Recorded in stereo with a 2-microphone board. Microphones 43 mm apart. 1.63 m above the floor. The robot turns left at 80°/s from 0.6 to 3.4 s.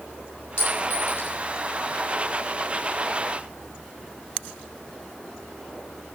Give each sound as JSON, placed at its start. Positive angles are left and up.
{"t": 0.6, "sound": "a clink", "side_deg": 55, "distance_m": 6.5}